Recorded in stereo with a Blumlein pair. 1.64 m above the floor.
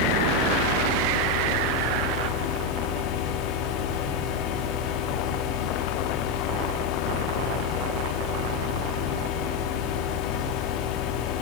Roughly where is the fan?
Ahead left.